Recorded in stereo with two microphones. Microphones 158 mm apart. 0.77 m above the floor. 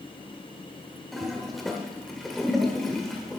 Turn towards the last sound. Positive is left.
turn(degrees=0)  # may be behind; listen again after turning